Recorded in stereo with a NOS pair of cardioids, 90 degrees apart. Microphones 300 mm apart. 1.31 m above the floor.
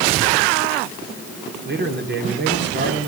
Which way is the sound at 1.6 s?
35° right.